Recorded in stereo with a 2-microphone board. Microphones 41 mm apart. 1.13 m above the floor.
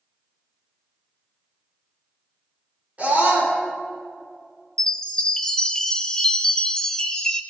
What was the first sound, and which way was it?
A scream, 35° right (ahead or behind).